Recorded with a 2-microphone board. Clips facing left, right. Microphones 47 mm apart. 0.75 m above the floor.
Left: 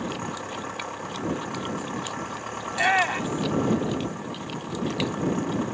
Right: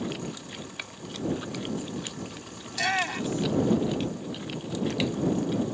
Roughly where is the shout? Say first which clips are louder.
Left 6 dB; left.